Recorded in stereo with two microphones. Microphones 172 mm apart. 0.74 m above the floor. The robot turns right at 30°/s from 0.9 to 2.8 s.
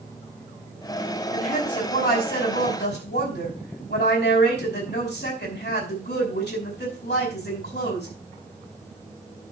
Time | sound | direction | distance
1.3 | a woman speaking | 40° left | 5 m